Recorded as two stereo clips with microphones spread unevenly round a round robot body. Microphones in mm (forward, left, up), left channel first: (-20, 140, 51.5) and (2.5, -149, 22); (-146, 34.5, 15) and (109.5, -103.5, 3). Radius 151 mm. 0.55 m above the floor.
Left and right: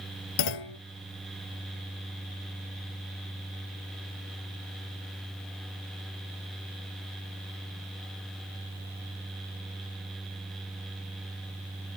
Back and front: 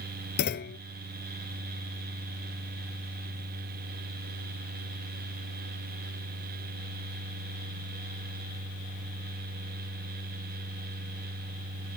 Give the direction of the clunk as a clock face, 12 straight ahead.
9 o'clock.